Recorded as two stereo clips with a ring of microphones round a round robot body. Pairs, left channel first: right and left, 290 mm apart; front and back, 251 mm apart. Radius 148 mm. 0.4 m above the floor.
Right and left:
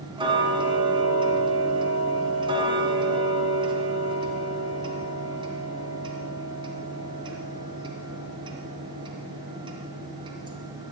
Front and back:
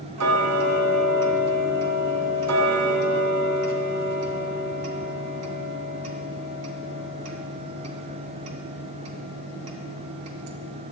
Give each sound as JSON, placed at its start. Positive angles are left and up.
{"t": 0.2, "sound": "ticking", "azimuth_deg": 165, "distance_m": 2.5}